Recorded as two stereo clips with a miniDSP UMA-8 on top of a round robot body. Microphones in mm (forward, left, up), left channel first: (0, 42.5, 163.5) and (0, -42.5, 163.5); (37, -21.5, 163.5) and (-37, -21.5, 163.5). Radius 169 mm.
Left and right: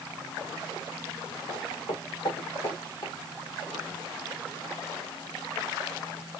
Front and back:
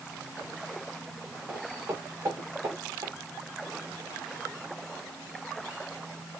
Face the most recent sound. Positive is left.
turn(degrees=135)